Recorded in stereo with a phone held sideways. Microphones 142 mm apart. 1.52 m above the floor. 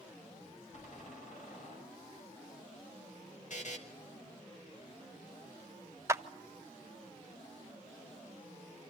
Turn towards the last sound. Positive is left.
turn(degrees=-20)  # may be behind; listen again after turning